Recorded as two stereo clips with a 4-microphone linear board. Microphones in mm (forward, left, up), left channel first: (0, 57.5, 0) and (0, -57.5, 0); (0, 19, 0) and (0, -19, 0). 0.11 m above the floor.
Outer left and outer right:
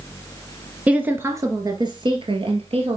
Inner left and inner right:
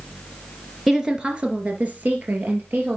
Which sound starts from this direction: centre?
A woman speaking, at 0.9 s.